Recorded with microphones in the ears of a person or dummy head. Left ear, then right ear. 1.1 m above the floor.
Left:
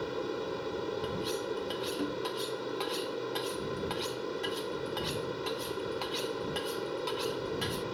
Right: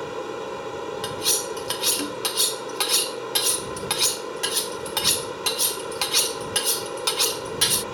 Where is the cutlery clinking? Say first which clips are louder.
Right 8 dB; 70° right (ahead or behind).